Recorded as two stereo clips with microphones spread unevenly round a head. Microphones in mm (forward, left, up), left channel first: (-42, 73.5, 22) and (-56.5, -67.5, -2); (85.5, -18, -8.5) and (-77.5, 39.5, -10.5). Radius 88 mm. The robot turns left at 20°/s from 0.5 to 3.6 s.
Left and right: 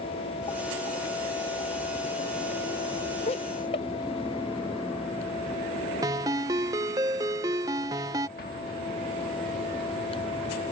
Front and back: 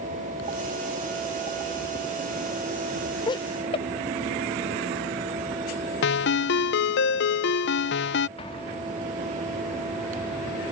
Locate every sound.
3.3 s laughter: 45° left; by 3.9 s 35° left
6.0 s a ringtone: 20° right
8.4 s an explosion: 40° left